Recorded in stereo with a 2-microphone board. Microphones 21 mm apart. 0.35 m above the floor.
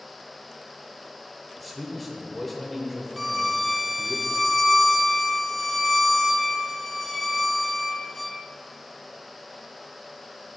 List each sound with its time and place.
1.6 s a man speaking: 10° left (ahead or behind), 1.1 m
3.2 s a violin: centre (ahead or behind), 0.6 m